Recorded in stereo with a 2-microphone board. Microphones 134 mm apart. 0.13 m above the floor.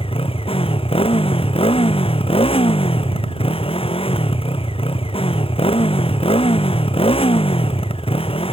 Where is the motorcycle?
45° left (ahead or behind).